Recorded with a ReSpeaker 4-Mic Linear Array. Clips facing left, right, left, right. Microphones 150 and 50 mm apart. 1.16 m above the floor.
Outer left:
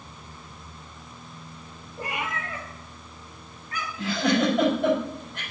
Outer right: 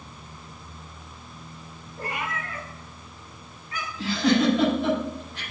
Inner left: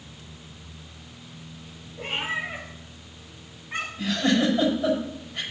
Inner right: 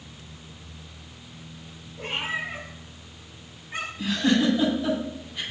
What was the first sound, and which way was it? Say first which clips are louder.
A cat meowing: even, inner left 1 dB; 15° left (ahead or behind).